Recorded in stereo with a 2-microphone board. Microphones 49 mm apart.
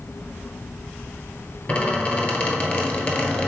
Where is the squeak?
25° left (ahead or behind), 1.1 m.